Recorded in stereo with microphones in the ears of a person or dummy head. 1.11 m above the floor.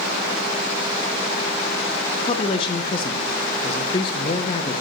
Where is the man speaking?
30° left (ahead or behind), 0.7 m.